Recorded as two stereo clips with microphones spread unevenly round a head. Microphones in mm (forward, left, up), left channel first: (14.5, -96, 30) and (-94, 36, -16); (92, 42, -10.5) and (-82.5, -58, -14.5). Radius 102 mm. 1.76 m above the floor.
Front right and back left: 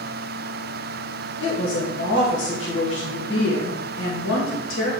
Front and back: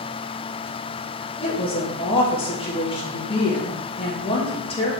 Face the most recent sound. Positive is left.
turn(degrees=-35)